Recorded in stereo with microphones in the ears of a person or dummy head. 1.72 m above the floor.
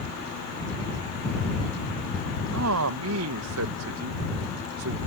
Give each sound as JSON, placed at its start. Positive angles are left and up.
{"t": 2.5, "sound": "a man speaking", "side_deg": -75}